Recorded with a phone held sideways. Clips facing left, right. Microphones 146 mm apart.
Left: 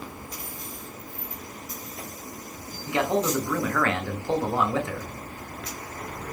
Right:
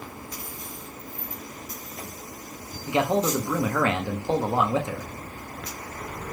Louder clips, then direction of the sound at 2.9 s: Right 1 dB; 20° right (ahead or behind).